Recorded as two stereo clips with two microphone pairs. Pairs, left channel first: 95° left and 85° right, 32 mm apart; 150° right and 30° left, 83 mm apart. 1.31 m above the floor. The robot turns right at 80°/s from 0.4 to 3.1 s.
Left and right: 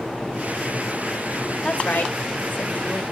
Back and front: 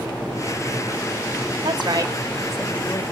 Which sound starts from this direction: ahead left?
A woman speaking, at 1.6 s.